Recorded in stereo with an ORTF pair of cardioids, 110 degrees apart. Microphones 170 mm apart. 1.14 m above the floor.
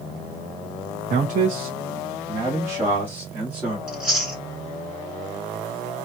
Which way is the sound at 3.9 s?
5° right.